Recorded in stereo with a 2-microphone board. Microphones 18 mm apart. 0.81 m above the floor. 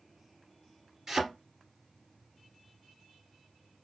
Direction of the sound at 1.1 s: 20° right (ahead or behind).